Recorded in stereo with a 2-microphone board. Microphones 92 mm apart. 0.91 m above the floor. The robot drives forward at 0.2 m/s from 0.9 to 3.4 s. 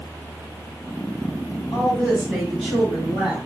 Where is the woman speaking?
10° right (ahead or behind), 1.6 m; by 3.4 s 5° right (ahead or behind), 1.9 m.